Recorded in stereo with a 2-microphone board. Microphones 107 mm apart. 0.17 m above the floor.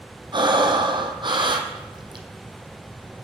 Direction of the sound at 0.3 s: 45° right (ahead or behind).